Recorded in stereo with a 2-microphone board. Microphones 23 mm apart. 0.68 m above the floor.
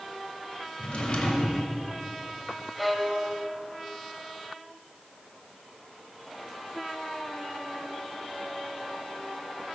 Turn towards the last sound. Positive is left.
turn(degrees=5)  # may be behind; listen again after turning